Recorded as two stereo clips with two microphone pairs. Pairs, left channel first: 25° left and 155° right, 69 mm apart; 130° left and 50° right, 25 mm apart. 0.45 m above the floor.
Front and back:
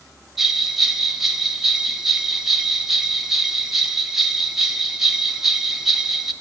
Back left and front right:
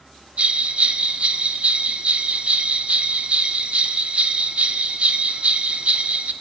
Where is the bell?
65° right, 0.6 m.